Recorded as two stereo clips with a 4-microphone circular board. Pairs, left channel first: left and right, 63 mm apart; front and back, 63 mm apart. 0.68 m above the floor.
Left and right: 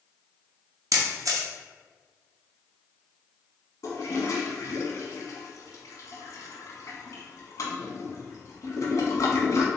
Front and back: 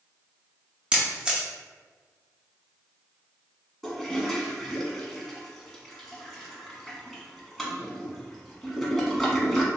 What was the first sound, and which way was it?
A camera shutter, 105° right.